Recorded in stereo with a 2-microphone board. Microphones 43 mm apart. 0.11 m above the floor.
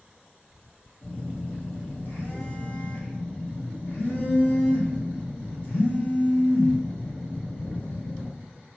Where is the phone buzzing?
45° left (ahead or behind), 1.3 m.